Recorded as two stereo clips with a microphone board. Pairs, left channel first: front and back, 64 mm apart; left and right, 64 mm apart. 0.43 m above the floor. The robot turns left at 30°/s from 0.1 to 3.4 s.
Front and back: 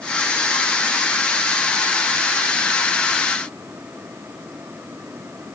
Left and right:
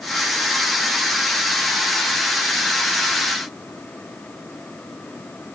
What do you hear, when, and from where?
Only background noise.